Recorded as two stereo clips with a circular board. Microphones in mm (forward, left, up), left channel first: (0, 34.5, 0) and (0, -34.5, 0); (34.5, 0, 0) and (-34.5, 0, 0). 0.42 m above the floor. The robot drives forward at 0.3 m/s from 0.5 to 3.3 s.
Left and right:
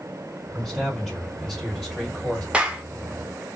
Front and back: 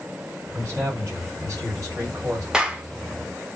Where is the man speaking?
160° left, 1.6 m; by 2.4 s 165° left, 2 m.